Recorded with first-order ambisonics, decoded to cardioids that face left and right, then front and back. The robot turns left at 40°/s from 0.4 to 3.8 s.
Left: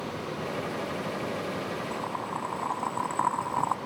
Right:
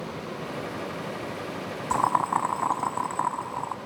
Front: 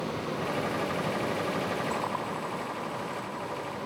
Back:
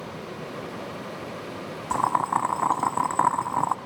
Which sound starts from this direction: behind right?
Boiling, at 1.9 s.